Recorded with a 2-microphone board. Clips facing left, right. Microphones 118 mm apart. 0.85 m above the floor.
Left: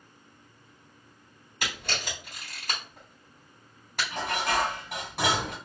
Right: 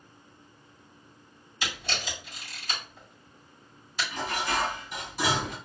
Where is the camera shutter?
65° left (ahead or behind), 3 m.